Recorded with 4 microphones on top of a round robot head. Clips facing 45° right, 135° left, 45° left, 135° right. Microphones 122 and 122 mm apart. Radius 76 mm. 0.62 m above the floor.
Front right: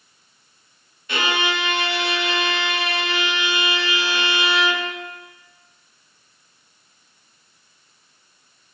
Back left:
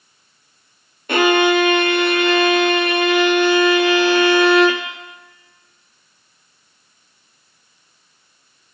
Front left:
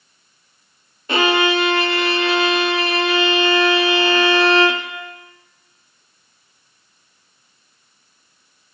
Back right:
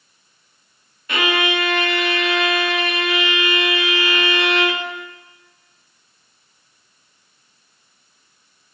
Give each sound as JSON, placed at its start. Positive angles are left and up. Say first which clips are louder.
{"t": 1.1, "sound": "a violin", "louder": "back left 10 dB, front left 4 dB", "azimuth_deg": 100, "distance_m": 0.5}